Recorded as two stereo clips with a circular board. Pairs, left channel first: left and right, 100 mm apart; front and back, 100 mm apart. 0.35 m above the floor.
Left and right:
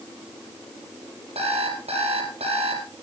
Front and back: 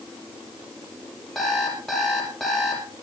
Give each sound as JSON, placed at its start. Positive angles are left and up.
{"t": 1.4, "sound": "an alarm clock", "azimuth_deg": -85, "distance_m": 4.5}